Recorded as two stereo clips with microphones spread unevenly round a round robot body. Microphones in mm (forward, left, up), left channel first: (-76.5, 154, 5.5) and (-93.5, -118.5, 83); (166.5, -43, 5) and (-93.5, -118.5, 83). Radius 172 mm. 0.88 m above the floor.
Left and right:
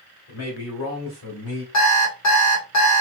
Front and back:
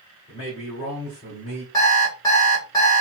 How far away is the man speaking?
About 2 m.